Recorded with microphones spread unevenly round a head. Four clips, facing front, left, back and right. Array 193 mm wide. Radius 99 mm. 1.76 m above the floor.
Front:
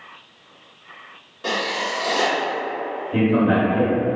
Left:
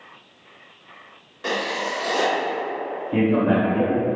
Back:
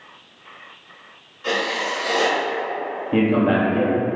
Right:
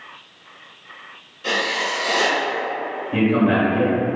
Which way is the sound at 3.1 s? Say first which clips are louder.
Right 1 dB, even; 165° left.